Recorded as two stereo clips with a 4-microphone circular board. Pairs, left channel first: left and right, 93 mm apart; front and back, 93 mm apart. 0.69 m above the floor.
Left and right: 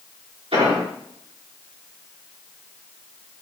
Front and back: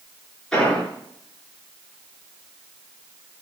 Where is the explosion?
85° right, 5 m.